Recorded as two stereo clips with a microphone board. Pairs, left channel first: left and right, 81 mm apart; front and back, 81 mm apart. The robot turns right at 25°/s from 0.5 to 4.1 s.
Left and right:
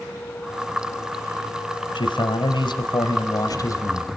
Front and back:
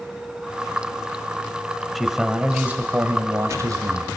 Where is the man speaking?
90° left, 3 m; by 4.1 s 145° left, 3 m.